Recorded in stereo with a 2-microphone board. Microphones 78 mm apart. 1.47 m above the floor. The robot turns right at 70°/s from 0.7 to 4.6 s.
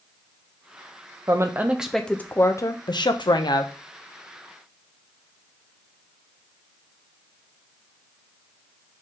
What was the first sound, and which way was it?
A woman speaking, 45° right.